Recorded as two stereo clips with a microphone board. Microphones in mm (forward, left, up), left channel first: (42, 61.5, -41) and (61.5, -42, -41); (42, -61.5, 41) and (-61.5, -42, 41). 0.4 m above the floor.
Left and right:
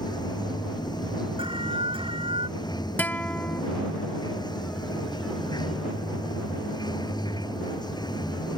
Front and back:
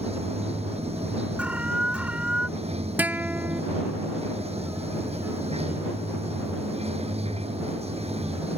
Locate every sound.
0.0 s running water: 150° left
1.4 s an alarm: 110° right
3.0 s a guitar: 130° left